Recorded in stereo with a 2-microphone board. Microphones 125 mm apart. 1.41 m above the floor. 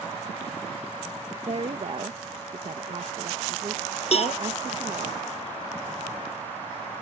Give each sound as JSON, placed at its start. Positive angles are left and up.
{"t": 1.5, "sound": "a woman speaking", "side_deg": -50}
{"t": 4.1, "sound": "a cowbell", "side_deg": 55}